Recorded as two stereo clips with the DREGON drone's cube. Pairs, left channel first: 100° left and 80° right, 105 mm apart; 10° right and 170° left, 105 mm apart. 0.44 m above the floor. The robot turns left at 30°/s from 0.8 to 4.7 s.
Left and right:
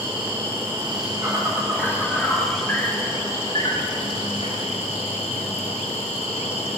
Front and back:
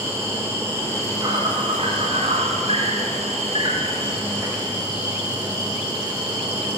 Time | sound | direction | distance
0.0 | an insect | 120° right | 9 m